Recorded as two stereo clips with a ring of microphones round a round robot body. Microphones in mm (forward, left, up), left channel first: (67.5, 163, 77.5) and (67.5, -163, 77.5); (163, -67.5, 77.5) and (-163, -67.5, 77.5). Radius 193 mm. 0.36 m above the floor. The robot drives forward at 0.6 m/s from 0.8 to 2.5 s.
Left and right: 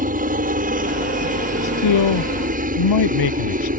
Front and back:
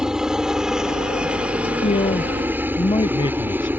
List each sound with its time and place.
0.0 s a helicopter: 95° right; by 3.8 s 105° right
1.6 s a man speaking: 75° left; by 3.7 s 80° left